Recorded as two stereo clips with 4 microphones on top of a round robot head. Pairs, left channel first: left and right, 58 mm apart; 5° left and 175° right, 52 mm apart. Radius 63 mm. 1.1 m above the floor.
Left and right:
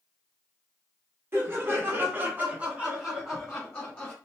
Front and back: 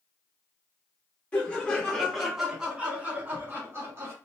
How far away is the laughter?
About 1.1 m.